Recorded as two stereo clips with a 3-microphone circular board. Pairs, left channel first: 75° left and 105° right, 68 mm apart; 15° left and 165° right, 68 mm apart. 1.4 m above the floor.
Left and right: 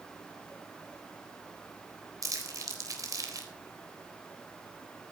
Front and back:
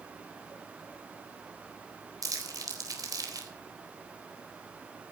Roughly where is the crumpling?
Behind right.